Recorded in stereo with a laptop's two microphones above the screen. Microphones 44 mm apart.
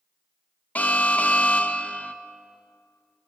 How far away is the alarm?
About 0.9 m.